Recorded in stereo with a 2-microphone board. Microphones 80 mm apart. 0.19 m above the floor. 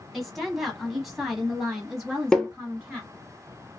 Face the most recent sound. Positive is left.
turn(degrees=10)  # may be behind; listen again after turning